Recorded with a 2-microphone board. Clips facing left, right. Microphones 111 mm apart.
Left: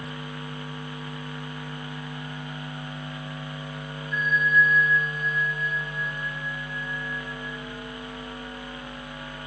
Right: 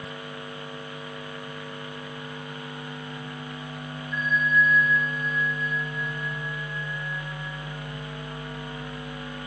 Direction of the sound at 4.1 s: 30° right (ahead or behind).